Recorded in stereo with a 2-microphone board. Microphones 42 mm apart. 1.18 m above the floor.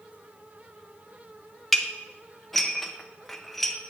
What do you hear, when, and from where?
1.7 s dishes clattering: centre (ahead or behind), 0.6 m